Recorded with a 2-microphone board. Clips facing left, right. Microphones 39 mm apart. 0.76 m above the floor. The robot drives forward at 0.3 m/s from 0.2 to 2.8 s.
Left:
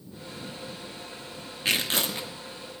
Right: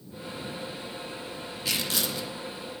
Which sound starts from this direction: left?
Tearing paper, at 1.6 s.